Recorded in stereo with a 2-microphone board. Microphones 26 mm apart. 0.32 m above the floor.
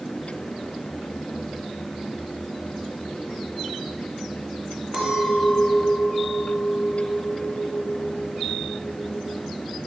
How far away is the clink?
About 2.5 m.